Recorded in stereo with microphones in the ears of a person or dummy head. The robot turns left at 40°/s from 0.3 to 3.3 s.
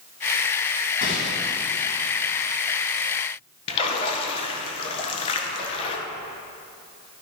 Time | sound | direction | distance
1.0 | a gunshot | 60° left (ahead or behind) | 2.5 m
3.7 | a splash | 30° left (ahead or behind) | 1.1 m